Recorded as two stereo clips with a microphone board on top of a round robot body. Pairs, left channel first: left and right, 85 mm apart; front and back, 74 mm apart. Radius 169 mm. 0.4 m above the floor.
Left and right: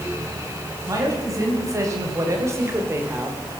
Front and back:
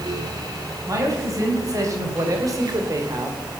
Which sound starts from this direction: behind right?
A man speaking, at 0.9 s.